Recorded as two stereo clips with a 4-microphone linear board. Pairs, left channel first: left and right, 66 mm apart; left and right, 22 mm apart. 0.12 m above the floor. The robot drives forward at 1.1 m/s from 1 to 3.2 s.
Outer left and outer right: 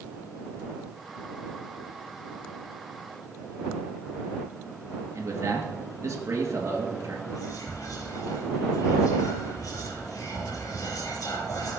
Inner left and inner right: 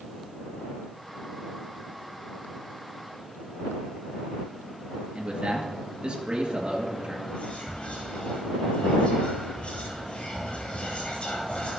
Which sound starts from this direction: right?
A man speaking, at 5.2 s.